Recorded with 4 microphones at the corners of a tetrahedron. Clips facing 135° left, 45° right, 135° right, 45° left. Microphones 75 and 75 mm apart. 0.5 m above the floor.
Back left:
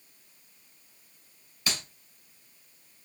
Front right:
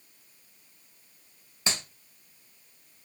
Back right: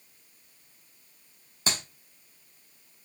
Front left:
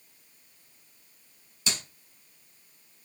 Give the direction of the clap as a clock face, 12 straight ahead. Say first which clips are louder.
Front right 1 dB, back right 3 dB; 3 o'clock.